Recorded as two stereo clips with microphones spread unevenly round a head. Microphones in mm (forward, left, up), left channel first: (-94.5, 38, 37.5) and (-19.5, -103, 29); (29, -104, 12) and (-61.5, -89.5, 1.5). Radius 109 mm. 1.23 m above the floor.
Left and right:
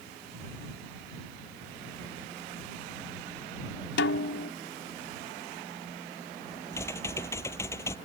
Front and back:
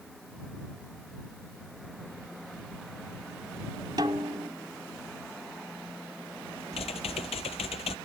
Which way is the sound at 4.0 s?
105° left.